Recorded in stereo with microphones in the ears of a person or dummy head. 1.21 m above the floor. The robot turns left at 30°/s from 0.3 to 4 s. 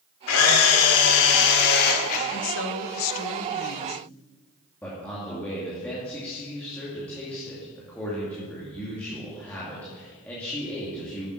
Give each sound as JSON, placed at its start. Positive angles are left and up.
{"t": 0.3, "sound": "a camera shutter", "azimuth_deg": 100, "distance_m": 2.0}
{"t": 2.3, "sound": "a woman speaking", "azimuth_deg": 115, "distance_m": 1.1}
{"t": 4.8, "sound": "a man speaking", "side_deg": 5, "distance_m": 2.0}